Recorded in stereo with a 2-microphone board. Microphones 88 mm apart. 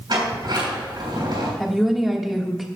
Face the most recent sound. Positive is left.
turn(degrees=0)  # may be behind; listen again after turning